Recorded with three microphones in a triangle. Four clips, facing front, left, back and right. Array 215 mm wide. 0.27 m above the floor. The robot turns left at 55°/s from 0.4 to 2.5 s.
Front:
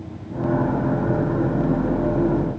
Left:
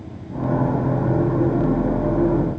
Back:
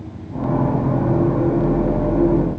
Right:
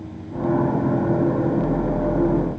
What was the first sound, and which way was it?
Only background noise.